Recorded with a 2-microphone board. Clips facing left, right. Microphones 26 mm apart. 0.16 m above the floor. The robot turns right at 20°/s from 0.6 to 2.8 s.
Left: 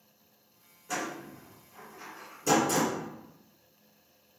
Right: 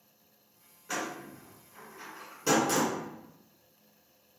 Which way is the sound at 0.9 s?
25° right (ahead or behind).